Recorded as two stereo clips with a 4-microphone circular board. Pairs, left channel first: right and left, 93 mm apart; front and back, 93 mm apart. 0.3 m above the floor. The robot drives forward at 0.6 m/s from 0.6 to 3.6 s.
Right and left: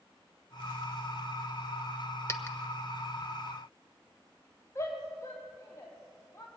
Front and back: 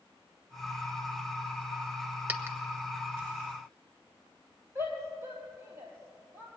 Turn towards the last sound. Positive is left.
turn(degrees=-130)